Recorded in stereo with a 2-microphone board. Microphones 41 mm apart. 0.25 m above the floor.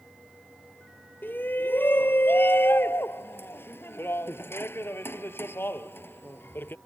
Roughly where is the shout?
Left.